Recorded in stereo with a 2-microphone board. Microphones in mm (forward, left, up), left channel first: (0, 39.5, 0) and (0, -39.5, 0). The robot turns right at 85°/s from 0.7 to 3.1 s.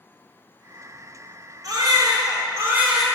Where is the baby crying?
120° right, 1.4 m; by 3.0 s straight ahead, 1.4 m.